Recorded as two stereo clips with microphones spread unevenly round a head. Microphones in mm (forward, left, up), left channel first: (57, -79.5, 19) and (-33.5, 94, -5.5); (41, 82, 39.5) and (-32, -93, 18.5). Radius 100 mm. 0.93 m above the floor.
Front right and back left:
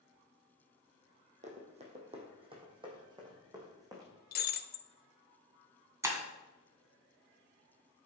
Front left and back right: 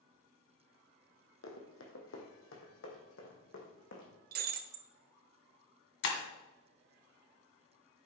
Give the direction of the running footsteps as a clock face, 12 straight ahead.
10 o'clock.